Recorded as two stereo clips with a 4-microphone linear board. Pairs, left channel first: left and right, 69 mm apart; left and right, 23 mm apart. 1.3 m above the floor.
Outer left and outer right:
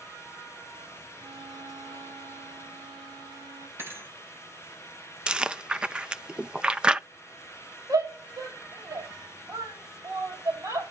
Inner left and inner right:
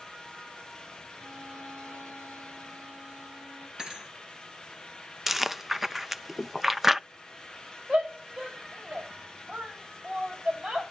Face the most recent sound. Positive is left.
turn(degrees=-60)  # may be behind; listen again after turning